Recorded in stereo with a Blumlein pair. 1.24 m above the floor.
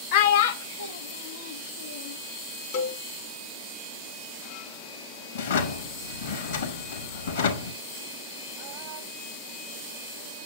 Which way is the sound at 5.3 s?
65° left.